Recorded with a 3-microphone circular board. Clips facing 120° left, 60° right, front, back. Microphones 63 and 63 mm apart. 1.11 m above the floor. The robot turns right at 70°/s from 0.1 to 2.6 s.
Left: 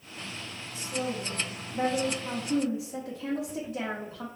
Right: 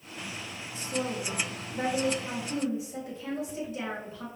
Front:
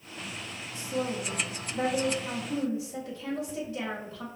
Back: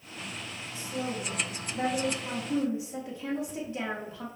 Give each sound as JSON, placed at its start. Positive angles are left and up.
{"t": 0.7, "sound": "a woman speaking", "azimuth_deg": -5, "distance_m": 1.3}